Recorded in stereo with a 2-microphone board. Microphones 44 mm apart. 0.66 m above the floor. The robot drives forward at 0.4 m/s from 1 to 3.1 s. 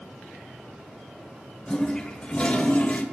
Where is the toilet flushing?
20° left (ahead or behind), 1.2 m; by 3.0 s 35° left (ahead or behind), 0.7 m.